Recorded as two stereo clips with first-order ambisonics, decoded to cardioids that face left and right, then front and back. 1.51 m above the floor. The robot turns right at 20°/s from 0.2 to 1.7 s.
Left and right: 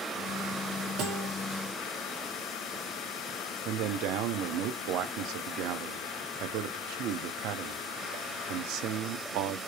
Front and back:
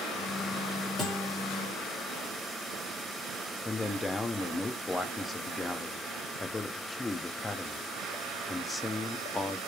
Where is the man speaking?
80° right, 0.5 m.